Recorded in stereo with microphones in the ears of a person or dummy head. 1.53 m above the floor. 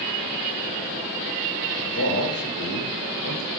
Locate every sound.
1.8 s a man speaking: 55° left (ahead or behind), 1.7 m